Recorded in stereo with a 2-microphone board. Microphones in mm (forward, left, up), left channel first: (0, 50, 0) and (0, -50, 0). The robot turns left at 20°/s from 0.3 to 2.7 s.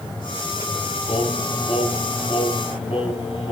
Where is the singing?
110° left, 4 m; by 3.5 s 75° left, 4 m.